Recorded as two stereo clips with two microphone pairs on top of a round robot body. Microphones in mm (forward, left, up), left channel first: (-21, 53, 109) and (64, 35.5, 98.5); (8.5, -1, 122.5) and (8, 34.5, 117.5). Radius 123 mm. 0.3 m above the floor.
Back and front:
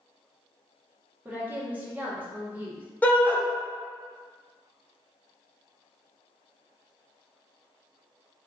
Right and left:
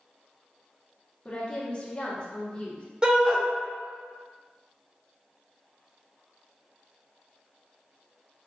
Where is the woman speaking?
40° right, 1.3 m.